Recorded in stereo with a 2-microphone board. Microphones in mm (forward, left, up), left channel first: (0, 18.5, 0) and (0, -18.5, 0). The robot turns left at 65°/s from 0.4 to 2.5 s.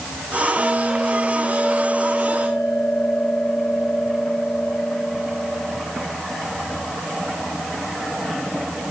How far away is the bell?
About 10 m.